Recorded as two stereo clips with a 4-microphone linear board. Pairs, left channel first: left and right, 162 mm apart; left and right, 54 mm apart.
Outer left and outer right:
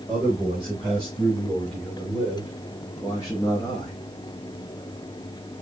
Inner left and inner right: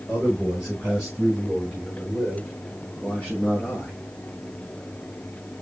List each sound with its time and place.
0.1 s a man speaking: 10° right (ahead or behind), 3 m; by 3.9 s 25° left (ahead or behind), 5 m